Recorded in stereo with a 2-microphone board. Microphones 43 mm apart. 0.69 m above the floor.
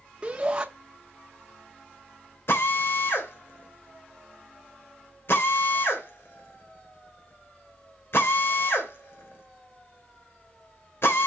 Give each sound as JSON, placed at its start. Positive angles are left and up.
{"t": 0.2, "sound": "a shout", "side_deg": -20, "distance_m": 0.9}
{"t": 2.5, "sound": "a drill", "side_deg": 60, "distance_m": 2.5}